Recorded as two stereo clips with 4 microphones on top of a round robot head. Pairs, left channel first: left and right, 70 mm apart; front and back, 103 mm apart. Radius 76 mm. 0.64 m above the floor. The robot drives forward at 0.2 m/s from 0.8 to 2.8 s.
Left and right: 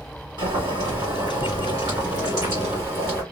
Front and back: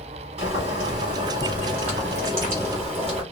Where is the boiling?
135° right, 1.4 m; by 3.2 s 145° right, 1.7 m.